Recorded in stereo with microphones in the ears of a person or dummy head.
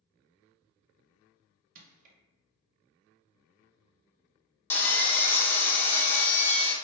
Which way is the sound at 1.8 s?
45° right (ahead or behind).